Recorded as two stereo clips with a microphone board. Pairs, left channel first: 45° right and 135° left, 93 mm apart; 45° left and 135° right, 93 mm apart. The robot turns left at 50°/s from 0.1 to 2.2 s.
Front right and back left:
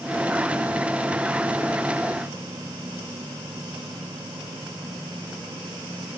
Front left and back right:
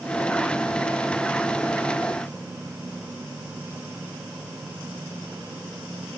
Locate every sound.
Only background noise.